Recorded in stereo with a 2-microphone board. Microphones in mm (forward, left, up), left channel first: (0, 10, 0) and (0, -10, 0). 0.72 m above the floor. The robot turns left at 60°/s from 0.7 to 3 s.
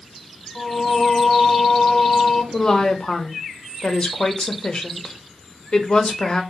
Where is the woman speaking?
25° left (ahead or behind), 0.6 m; by 6.4 s 45° left (ahead or behind), 0.6 m.